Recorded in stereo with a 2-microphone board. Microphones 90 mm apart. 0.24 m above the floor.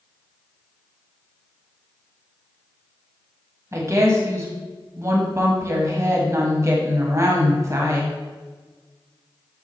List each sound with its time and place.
3.7 s a woman speaking: 35° right (ahead or behind), 1.1 m